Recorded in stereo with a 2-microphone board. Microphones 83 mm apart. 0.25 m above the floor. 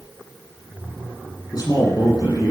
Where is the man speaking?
50° left (ahead or behind), 9 m.